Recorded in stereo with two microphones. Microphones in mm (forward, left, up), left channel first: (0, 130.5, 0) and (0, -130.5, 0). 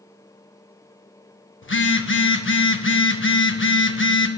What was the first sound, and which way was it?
A phone buzzing, 50° left (ahead or behind).